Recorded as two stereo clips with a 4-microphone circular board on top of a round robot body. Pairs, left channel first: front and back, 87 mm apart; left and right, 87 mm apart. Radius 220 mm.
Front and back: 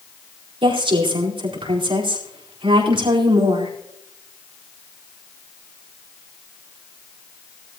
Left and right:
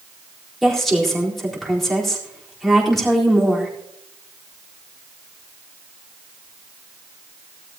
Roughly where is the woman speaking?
Behind.